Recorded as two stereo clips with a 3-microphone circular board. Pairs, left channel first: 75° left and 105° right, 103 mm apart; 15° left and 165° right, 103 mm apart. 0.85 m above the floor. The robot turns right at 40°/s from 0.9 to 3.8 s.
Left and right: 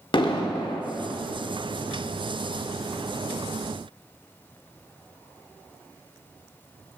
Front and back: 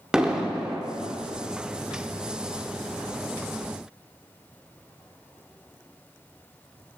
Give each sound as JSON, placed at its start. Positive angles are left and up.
{"t": 0.1, "sound": "an explosion", "azimuth_deg": 115, "distance_m": 0.8}